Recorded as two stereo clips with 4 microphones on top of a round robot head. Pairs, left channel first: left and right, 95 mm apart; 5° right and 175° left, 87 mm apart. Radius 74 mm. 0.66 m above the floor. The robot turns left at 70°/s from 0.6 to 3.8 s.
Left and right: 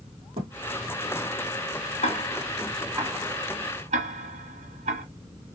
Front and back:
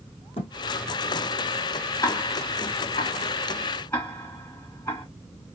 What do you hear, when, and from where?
0.4 s a thud: 40° right, 3 m
2.0 s ticking: 45° left, 1.5 m; by 5.0 s 80° right, 1.5 m